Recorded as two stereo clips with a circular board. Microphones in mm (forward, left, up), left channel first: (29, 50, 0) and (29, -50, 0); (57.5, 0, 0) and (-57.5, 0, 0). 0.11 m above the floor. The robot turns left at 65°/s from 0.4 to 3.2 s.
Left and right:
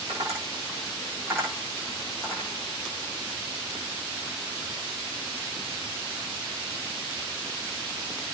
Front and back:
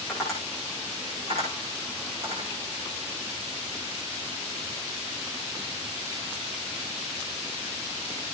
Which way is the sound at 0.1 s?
90° right.